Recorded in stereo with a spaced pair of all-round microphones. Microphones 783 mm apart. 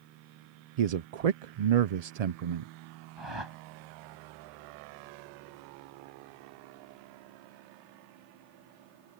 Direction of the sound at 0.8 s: 55° right (ahead or behind).